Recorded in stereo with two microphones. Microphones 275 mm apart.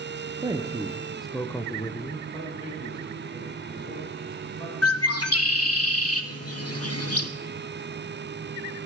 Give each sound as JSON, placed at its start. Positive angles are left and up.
{"t": 0.4, "sound": "a man speaking", "side_deg": -15, "distance_m": 0.6}
{"t": 2.3, "sound": "a man speaking", "side_deg": 20, "distance_m": 5.5}
{"t": 4.8, "sound": "a bird", "side_deg": 60, "distance_m": 0.7}